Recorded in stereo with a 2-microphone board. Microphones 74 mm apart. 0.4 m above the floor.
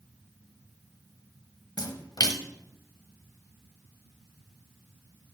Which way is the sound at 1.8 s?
65° left (ahead or behind).